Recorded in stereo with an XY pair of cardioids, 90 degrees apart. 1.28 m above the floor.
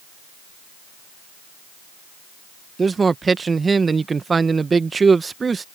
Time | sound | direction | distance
2.8 | a man speaking | 35° right | ?